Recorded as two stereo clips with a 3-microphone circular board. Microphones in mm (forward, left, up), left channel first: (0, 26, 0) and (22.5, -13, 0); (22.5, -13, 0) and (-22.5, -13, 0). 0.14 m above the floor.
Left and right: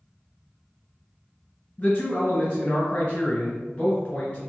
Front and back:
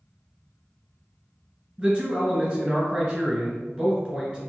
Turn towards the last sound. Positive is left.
turn(degrees=135)